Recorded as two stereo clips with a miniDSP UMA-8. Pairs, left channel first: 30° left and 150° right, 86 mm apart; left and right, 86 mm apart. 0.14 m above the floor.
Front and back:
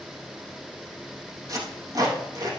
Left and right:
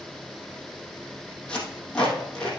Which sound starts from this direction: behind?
Tape being pulled, at 1.5 s.